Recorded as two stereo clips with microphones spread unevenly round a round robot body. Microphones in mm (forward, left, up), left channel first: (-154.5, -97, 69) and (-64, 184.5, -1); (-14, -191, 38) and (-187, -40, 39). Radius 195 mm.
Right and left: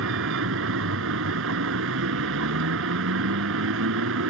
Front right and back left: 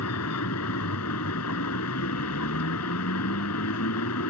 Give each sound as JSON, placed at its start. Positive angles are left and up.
{"t": 0.0, "sound": "a vehicle", "azimuth_deg": 10}